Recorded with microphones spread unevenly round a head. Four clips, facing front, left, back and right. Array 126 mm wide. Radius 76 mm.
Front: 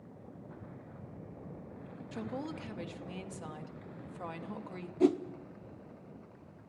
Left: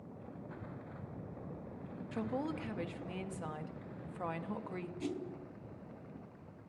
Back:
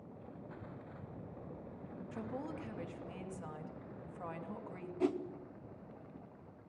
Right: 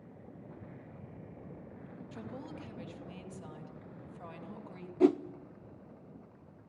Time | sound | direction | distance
2.1 | a woman speaking | 60° left | 2.5 m
5.0 | a whoosh | 75° right | 0.6 m